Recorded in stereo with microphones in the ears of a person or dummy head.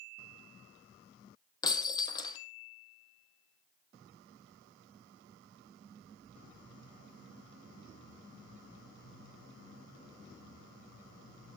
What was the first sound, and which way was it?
Breaking glass, 20° left (ahead or behind).